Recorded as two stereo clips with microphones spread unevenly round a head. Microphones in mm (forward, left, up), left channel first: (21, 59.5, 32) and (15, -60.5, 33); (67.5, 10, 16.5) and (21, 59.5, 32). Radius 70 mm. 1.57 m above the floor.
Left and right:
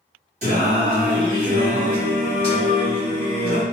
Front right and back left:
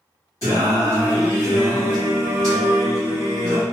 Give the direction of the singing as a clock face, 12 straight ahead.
4 o'clock.